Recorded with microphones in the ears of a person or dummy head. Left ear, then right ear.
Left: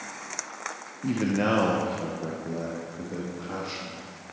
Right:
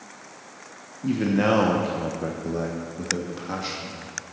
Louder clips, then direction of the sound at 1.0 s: Right 4 dB; 10° left (ahead or behind).